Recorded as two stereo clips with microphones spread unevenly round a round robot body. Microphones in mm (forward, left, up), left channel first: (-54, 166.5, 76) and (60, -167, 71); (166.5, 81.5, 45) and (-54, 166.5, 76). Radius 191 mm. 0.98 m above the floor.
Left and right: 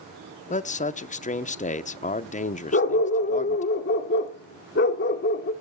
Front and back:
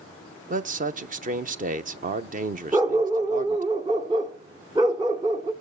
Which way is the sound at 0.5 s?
150° left.